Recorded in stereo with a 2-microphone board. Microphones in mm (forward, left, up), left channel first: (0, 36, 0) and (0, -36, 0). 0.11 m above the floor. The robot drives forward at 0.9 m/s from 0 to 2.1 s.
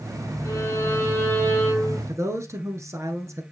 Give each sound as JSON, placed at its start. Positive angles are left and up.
{"t": 0.5, "sound": "a violin", "side_deg": 40, "distance_m": 2.0}
{"t": 2.1, "sound": "a man speaking", "side_deg": -40, "distance_m": 1.5}